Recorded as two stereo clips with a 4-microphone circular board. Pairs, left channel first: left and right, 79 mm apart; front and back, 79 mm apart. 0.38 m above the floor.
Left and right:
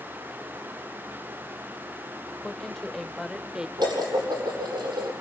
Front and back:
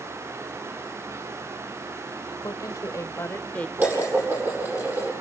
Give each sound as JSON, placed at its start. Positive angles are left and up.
{"t": 2.4, "sound": "a woman speaking", "azimuth_deg": 10, "distance_m": 1.7}
{"t": 3.8, "sound": "dishes clattering", "azimuth_deg": -115, "distance_m": 8.5}